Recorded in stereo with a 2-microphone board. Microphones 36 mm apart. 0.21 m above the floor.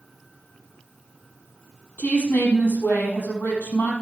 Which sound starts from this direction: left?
A woman speaking, at 2.0 s.